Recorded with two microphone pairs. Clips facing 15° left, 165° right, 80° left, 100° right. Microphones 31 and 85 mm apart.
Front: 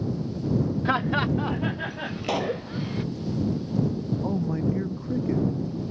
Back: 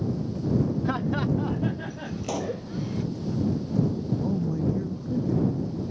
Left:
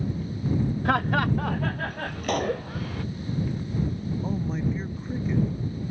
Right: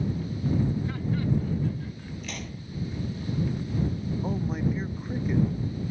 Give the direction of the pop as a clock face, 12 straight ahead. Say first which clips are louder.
Front 4 dB, left 17 dB; 10 o'clock.